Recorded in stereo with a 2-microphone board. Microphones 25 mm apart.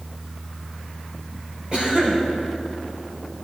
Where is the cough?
45° right (ahead or behind), 4 m.